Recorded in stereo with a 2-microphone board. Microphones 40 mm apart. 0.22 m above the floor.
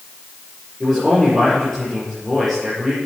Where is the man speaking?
5° left (ahead or behind), 6 m.